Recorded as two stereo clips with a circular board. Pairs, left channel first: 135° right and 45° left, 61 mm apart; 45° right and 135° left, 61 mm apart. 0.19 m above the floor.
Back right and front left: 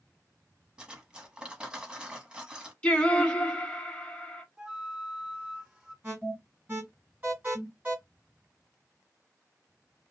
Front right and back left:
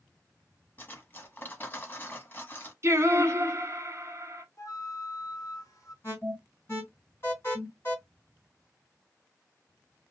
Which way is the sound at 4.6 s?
30° right.